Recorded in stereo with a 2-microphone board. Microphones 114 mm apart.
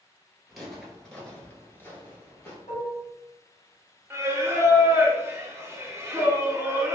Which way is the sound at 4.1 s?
25° right (ahead or behind).